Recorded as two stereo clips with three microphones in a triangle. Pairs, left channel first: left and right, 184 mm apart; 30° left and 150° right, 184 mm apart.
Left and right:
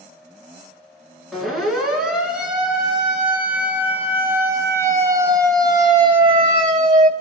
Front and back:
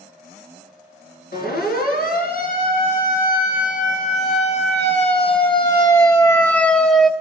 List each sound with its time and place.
1.3 s a siren: straight ahead, 6.5 m; by 7.1 s 65° right, 2.5 m